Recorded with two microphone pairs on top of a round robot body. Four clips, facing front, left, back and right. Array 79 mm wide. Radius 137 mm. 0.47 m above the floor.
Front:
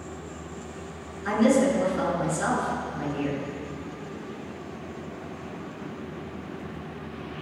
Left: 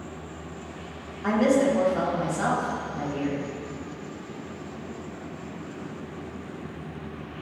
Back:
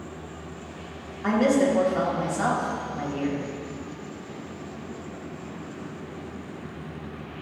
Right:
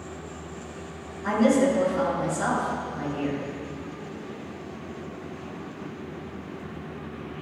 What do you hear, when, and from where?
1.2 s a woman speaking: 155° left, 3.5 m